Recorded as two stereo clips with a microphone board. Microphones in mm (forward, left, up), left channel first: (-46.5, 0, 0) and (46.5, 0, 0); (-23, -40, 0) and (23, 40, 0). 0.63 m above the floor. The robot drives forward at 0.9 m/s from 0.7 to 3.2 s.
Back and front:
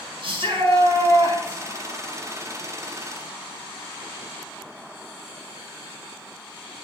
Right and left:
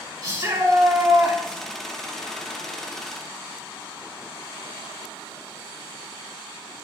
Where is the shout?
5° left, 5.5 m.